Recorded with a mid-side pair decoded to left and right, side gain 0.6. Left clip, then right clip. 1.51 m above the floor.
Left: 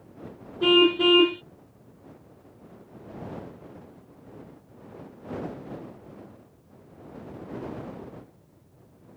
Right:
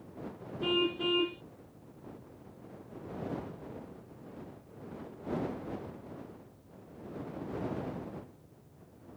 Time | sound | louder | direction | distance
0.6 | a car horn | left 12 dB | 55° left | ?